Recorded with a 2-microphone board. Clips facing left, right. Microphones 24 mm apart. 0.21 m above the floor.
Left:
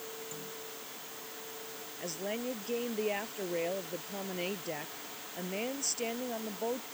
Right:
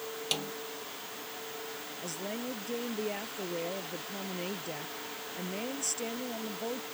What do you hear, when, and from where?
0.3 s a snare drum: 65° right (ahead or behind)
2.0 s a woman speaking: 10° left (ahead or behind)